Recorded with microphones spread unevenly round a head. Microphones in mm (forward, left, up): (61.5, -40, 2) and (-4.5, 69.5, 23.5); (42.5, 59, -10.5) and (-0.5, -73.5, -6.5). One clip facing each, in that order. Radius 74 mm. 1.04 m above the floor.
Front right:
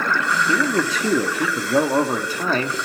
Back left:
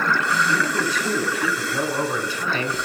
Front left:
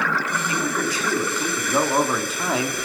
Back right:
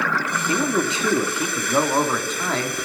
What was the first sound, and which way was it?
A man speaking, 50° right.